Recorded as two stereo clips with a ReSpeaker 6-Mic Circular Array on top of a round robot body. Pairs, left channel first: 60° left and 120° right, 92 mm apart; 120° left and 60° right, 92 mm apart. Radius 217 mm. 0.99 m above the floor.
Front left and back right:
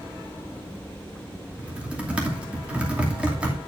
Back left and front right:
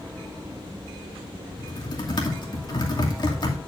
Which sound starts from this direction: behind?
Typing on a keyboard, at 1.6 s.